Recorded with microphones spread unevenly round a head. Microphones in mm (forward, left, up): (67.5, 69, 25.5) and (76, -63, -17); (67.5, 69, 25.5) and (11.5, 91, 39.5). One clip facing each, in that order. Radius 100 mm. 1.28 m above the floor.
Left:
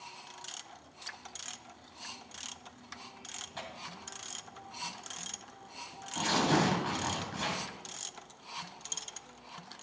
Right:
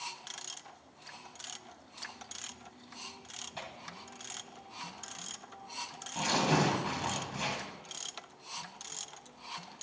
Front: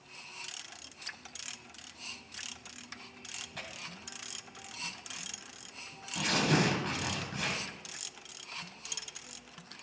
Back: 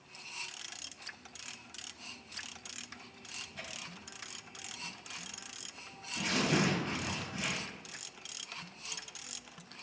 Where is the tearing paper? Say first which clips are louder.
Left 1 dB, front 3 dB; 5° right, 2.5 m.